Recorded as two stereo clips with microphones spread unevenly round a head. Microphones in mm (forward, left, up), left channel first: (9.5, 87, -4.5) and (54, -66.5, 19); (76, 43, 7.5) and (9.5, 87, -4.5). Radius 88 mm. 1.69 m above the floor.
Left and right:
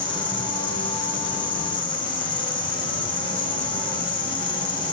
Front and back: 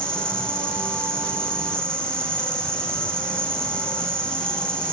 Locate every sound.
0.0 s an insect: 45° left, 3.5 m